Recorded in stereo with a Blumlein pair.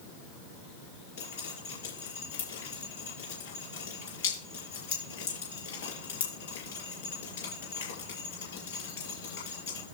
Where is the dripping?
55° left, 7 m.